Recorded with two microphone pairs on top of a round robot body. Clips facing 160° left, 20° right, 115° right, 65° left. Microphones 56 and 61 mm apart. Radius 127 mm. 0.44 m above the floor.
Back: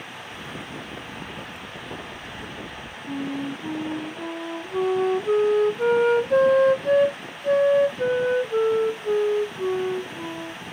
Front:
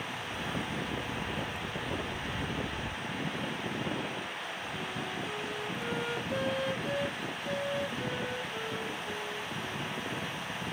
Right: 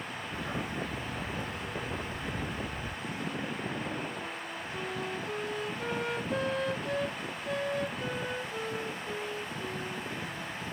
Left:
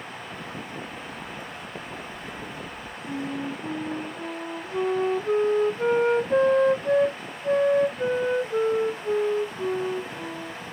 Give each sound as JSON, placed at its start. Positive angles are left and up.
{"t": 0.3, "sound": "a dog barking", "azimuth_deg": -115}
{"t": 3.1, "sound": "a flute", "azimuth_deg": 120}